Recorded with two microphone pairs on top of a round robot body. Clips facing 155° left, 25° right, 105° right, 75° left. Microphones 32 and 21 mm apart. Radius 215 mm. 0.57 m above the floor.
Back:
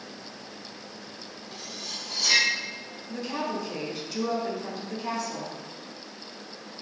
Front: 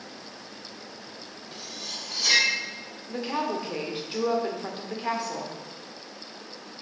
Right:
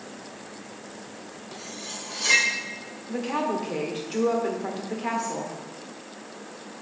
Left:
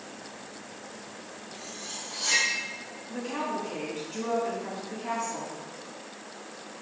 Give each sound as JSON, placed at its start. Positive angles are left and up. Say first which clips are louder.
{"t": 1.5, "sound": "cutlery clinking", "louder": "front 1 dB, right 3 dB", "azimuth_deg": -100, "distance_m": 2.0}
{"t": 3.1, "sound": "a woman speaking", "louder": "front 2 dB, right 5 dB", "azimuth_deg": -80, "distance_m": 1.9}